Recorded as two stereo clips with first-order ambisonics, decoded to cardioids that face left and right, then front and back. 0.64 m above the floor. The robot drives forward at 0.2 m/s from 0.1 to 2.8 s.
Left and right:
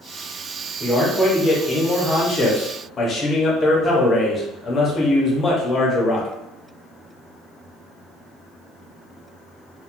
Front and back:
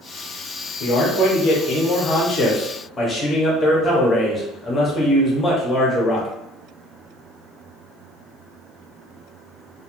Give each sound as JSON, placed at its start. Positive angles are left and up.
{"t": 0.8, "sound": "a man speaking", "azimuth_deg": 20, "distance_m": 0.8}